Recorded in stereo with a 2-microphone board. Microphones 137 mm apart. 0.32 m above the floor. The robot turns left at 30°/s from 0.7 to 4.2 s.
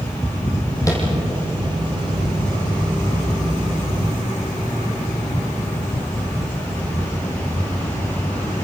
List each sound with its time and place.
0.9 s tapping: 25° left (ahead or behind), 6 m; by 1.0 s 20° left (ahead or behind), 6 m